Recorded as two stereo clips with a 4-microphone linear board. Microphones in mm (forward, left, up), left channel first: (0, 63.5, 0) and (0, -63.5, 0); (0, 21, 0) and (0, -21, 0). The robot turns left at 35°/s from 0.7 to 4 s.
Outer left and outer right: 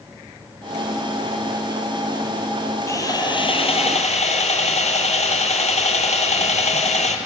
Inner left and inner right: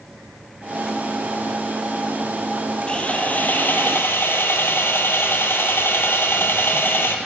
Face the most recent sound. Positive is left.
turn(degrees=115)